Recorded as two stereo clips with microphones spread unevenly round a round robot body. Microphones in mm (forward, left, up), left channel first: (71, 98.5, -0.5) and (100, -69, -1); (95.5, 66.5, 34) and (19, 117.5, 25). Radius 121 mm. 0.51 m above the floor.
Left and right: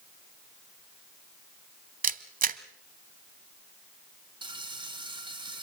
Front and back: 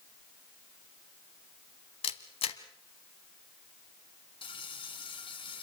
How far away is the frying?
About 2.5 m.